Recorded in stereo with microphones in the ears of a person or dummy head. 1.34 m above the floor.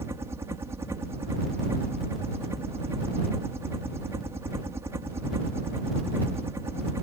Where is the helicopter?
15° right (ahead or behind).